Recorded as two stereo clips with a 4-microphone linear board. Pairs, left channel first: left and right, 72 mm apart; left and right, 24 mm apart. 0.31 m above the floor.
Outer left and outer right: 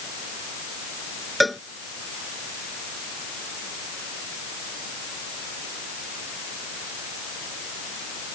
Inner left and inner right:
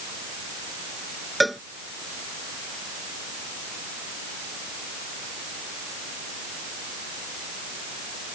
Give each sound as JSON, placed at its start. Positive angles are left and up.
{"t": 1.4, "sound": "a cowbell", "side_deg": 0}